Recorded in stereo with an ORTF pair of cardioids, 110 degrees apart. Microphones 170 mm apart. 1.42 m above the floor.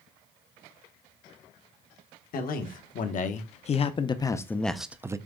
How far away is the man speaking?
About 1.5 m.